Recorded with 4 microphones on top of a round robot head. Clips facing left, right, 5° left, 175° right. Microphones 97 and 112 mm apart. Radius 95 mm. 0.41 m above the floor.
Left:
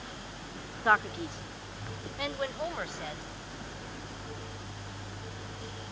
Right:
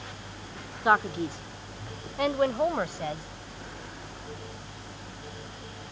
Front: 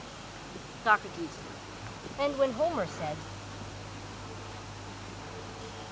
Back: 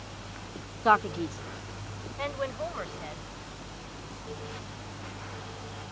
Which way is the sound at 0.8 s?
150° right.